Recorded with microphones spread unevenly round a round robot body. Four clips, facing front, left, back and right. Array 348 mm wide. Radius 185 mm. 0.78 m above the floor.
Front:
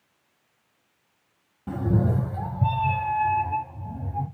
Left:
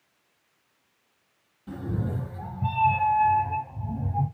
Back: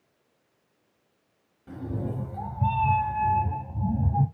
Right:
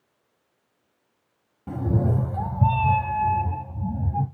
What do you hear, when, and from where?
1.7 s a cat meowing: 35° right, 1.2 m; by 4.3 s 155° right, 1.4 m